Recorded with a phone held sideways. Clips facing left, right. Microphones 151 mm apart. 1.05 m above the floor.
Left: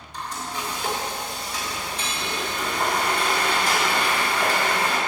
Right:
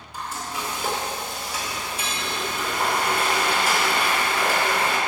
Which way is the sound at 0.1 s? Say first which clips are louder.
Even; 5° right (ahead or behind).